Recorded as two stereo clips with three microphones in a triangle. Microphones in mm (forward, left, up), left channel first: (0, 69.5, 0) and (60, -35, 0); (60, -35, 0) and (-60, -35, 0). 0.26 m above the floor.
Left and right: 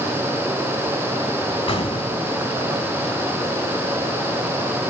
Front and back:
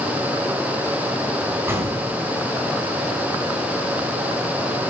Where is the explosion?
115° left, 2 m.